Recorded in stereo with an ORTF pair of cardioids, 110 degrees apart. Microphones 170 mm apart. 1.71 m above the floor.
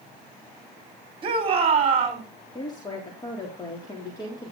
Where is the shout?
30° right, 5 m; by 2.2 s 40° right, 5.5 m.